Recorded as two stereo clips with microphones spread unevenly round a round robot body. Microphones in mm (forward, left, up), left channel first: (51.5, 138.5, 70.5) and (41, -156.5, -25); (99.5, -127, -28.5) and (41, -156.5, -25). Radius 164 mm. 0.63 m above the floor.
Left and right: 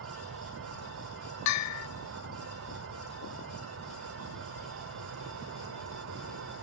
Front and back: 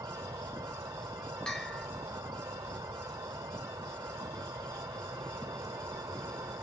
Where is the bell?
90° left, 0.7 m.